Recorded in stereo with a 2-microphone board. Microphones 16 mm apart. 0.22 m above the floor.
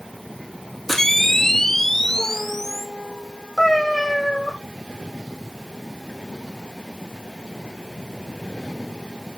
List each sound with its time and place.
0.9 s a camera shutter: 30° left (ahead or behind), 1.7 m
3.6 s a cat meowing: 40° left (ahead or behind), 3.5 m